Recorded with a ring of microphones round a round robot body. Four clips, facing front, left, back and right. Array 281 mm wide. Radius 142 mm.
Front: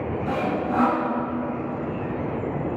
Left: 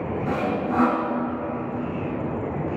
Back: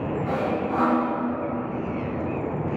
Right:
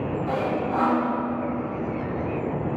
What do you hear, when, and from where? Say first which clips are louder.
0.3 s sawing: left 1 dB, front 1 dB; 75° left, 1.8 m